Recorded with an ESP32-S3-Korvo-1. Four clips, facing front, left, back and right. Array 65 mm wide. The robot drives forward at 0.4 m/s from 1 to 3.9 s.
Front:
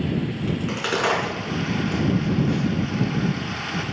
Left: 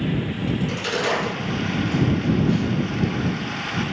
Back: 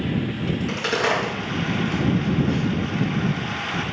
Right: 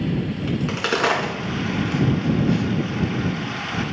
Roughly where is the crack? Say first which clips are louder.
Right 3 dB, back 1 dB; right.